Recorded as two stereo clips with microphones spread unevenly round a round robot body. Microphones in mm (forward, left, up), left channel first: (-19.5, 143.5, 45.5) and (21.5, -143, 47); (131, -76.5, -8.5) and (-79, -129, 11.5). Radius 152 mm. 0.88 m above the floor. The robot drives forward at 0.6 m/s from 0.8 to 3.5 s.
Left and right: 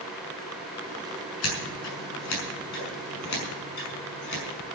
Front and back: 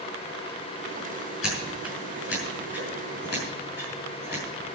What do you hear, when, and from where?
1.4 s scissors: 60° left, 6.5 m; by 4.4 s 75° left, 6 m